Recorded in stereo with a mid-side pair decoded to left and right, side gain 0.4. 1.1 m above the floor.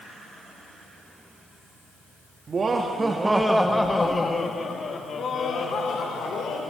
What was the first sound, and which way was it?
Laughter, 45° right.